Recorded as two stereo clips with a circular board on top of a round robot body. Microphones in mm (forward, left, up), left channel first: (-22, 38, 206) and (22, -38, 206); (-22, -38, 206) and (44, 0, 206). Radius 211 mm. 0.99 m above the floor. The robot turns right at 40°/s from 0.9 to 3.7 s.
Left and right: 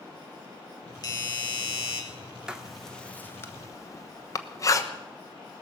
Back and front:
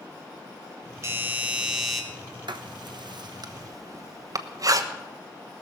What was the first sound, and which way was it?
A doorbell, 80° left.